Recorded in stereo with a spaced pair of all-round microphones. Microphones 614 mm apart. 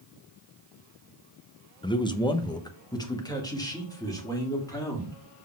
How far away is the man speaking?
About 0.6 m.